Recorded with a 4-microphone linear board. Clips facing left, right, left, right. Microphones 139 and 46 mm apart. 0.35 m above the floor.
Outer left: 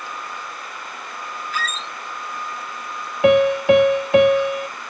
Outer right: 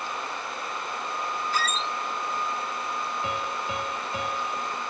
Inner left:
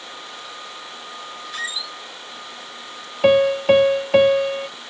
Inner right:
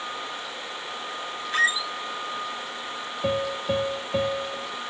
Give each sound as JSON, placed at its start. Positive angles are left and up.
{"t": 1.5, "sound": "a squeak", "side_deg": -35}
{"t": 3.2, "sound": "a piano", "side_deg": 75}